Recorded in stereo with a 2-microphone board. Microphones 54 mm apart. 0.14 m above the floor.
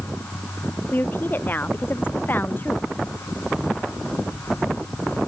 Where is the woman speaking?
40° left (ahead or behind).